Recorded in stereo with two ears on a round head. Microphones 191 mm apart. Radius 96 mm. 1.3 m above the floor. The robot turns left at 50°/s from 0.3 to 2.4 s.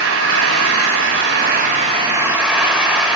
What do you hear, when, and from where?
0.0 s an engine running: 70° right, 6 m; by 3.1 s 175° right, 6 m